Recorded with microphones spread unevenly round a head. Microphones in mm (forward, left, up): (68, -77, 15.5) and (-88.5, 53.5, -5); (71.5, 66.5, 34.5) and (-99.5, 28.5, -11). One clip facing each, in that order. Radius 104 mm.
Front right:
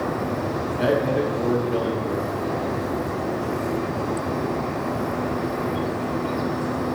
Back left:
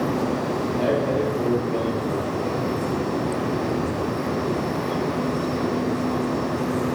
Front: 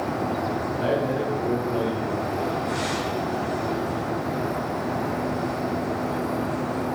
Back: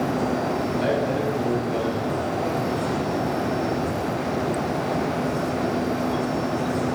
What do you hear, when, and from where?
0.8 s a man speaking: 115° right, 3.5 m